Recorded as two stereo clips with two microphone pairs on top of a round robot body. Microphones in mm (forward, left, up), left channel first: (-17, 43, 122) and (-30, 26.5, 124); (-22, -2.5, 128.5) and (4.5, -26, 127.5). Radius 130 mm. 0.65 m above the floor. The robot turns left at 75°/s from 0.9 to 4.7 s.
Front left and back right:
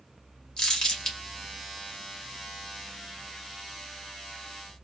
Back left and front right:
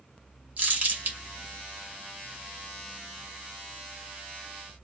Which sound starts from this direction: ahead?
Crumpling, at 0.6 s.